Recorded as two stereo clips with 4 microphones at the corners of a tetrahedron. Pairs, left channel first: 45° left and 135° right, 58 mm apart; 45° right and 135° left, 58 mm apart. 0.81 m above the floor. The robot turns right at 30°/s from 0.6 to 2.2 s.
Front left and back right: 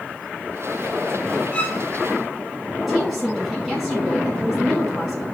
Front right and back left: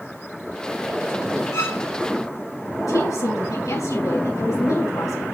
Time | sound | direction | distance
1.5 | a violin | 25° right | 1.9 m
2.9 | a woman speaking | 45° right | 7 m